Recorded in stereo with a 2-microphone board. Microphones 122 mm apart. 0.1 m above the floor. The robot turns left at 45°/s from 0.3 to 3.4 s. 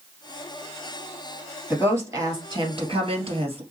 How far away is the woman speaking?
About 2.5 m.